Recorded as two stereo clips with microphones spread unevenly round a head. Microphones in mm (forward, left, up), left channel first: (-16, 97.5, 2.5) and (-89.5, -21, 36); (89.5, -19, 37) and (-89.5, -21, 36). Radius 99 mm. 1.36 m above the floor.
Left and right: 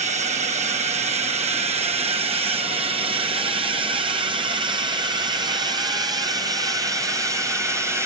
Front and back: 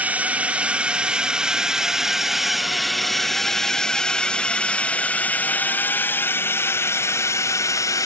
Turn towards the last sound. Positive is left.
turn(degrees=-45)